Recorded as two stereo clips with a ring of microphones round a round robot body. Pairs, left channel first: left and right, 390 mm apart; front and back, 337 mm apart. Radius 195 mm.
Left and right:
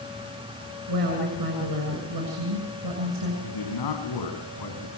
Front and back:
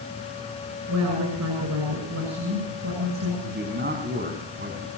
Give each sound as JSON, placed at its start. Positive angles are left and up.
{"t": 0.9, "sound": "a woman speaking", "azimuth_deg": -130, "distance_m": 7.0}
{"t": 3.4, "sound": "a man speaking", "azimuth_deg": 120, "distance_m": 5.5}